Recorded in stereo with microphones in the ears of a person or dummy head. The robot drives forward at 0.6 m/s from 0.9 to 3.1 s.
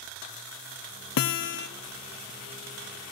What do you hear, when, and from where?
1.2 s a guitar: 75° left (ahead or behind), 0.6 m; by 1.7 s 50° left (ahead or behind), 0.7 m